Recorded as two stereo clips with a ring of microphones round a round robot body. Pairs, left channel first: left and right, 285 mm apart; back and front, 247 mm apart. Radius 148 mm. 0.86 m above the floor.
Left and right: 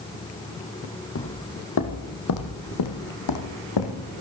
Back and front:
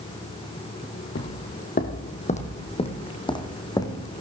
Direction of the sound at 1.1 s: 135° left.